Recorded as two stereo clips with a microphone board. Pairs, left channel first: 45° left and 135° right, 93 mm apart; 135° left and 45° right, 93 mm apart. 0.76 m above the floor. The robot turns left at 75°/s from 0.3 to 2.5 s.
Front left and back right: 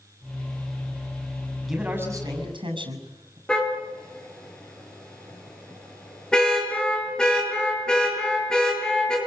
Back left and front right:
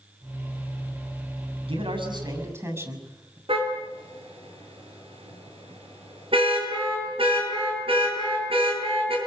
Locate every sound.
1.7 s a man speaking: 45° right, 7 m; by 3.4 s 105° right, 7 m
3.5 s a car horn: 35° right, 8.5 m